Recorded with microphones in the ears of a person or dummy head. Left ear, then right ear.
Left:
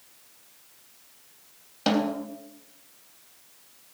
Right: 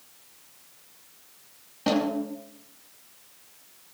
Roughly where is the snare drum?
Left.